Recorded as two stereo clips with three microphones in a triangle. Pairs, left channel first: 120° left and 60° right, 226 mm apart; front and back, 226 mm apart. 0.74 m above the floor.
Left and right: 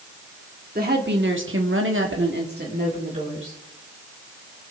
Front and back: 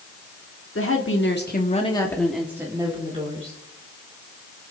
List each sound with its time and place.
0.8 s a woman speaking: 10° right, 2 m; by 3.6 s 120° right, 3 m